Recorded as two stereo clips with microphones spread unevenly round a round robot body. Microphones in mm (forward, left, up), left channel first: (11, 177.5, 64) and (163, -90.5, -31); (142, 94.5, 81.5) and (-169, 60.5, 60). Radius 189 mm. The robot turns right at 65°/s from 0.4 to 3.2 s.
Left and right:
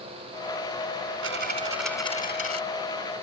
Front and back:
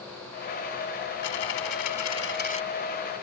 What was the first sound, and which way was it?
A dropped coin, 10° right.